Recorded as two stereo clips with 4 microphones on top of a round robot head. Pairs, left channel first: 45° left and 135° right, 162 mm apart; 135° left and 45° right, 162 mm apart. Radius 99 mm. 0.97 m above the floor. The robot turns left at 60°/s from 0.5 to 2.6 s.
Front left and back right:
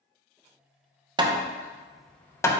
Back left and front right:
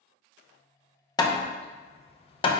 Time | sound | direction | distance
1.2 | hammering | 175° right | 0.6 m